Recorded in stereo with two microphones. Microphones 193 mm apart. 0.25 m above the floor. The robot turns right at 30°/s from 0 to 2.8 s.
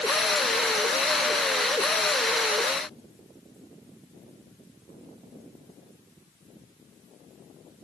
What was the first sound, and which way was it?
Only background noise.